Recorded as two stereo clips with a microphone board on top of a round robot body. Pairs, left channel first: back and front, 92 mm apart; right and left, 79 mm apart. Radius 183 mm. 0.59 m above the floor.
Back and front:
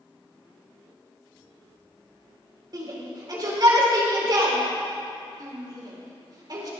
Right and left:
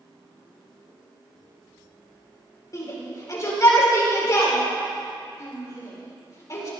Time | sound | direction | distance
2.7 | a shout | 45° right | 4.5 m